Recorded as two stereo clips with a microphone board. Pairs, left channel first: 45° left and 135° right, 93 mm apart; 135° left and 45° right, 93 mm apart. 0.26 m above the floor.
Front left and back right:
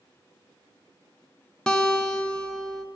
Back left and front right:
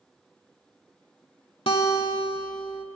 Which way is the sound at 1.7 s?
125° left.